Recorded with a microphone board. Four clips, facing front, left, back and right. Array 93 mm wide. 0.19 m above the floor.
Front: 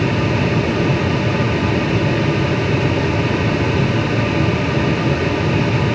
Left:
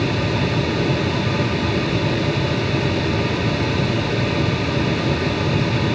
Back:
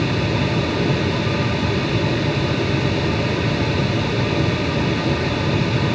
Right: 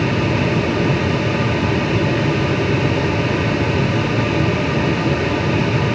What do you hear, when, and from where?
Only background noise.